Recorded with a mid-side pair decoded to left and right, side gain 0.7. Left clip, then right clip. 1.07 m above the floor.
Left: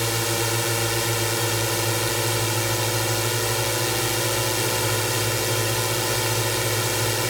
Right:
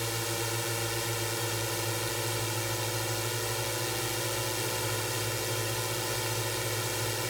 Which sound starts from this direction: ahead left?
A drone, at 0.0 s.